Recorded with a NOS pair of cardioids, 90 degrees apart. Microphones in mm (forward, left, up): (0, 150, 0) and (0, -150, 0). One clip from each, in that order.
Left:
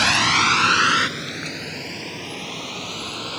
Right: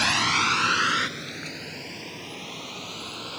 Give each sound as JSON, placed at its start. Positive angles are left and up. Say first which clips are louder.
{"t": 0.0, "sound": "a vehicle", "louder": "left 5 dB", "azimuth_deg": 30}